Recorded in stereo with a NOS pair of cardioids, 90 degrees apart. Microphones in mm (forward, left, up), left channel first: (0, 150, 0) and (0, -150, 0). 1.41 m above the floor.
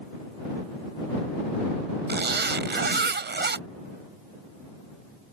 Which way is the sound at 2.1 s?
35° right.